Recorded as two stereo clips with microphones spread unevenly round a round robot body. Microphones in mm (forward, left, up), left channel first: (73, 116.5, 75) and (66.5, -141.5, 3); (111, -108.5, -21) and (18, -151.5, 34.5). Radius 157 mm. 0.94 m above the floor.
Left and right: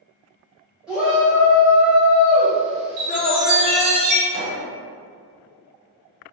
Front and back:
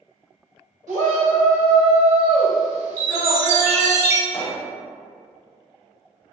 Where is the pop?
45° right, 1.2 m.